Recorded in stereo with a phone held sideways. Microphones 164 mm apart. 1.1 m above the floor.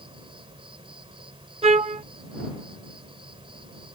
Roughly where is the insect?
Right.